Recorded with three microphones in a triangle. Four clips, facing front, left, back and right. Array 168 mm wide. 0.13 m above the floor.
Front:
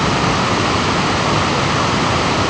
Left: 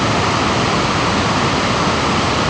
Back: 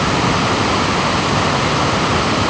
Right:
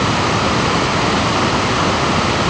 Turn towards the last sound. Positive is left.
No sound to turn to.